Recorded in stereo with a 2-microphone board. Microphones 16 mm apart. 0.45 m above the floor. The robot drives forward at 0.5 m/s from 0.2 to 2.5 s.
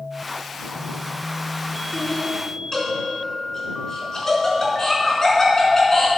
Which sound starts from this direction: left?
Laughter, at 1.9 s.